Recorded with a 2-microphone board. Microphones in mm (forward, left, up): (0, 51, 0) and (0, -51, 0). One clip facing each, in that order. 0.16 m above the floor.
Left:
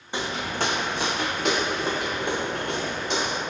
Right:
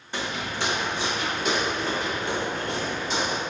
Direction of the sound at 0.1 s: 15° left (ahead or behind).